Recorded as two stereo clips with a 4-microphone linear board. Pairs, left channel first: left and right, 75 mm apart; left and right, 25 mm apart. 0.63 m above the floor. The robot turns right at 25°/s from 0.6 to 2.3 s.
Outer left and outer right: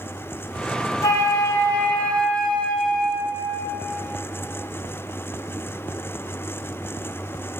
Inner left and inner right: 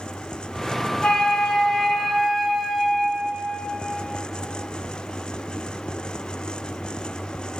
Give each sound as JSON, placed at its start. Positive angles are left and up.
{"t": 1.0, "sound": "a flute", "azimuth_deg": 135, "distance_m": 0.5}